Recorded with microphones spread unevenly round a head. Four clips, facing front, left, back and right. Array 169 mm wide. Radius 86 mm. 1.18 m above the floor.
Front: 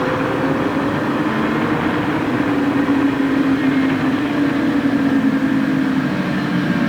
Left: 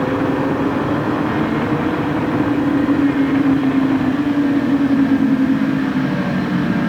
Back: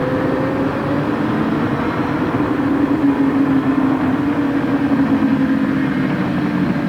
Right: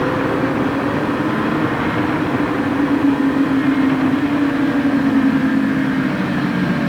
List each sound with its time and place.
Only background noise.